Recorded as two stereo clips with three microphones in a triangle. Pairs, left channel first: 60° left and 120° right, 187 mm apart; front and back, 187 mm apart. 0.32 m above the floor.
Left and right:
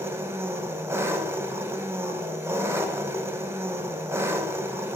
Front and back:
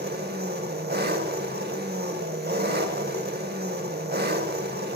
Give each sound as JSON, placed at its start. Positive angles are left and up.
{"t": 0.0, "sound": "an engine running", "azimuth_deg": 165, "distance_m": 0.8}